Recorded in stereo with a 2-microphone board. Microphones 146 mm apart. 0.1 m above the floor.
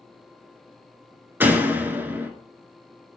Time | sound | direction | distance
1.4 | a door slam | 15° right (ahead or behind) | 0.8 m